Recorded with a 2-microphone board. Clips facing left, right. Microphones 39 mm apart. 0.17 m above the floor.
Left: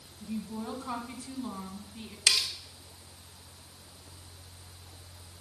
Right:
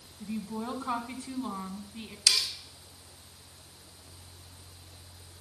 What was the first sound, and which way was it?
A woman speaking, 25° right (ahead or behind).